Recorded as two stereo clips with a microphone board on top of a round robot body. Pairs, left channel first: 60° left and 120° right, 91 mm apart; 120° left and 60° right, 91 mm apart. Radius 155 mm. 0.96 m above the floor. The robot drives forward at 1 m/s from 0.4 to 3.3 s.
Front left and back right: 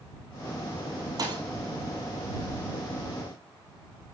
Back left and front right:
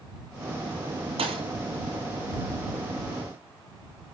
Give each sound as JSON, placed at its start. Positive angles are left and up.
{"t": 1.2, "sound": "a thud", "azimuth_deg": -70, "distance_m": 1.3}